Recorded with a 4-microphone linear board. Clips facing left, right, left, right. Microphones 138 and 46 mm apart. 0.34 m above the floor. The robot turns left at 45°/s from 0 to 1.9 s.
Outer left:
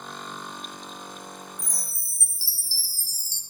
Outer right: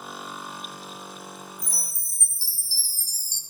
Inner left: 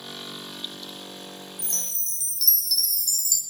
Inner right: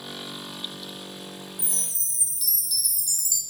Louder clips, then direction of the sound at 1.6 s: Even, inner left 1 dB; 5° right (ahead or behind).